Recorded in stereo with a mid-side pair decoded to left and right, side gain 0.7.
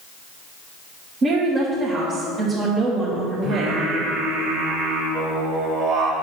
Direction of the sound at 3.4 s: 55° right.